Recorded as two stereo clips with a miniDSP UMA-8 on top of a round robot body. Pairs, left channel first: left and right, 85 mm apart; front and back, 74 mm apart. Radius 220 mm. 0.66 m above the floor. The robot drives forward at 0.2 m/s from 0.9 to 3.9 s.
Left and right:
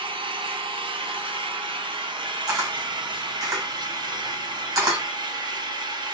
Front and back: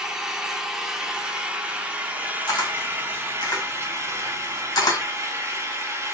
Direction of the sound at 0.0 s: 95° right.